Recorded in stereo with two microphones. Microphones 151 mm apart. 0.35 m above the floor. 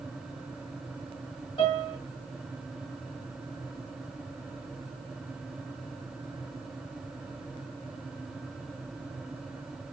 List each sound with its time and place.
1.6 s a piano: 35° left (ahead or behind), 2.5 m